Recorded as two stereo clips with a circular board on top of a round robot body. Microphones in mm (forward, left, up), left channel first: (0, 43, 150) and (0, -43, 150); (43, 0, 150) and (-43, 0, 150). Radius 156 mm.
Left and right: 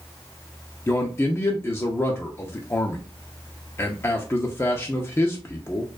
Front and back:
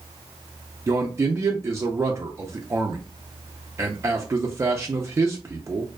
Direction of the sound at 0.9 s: 140° left.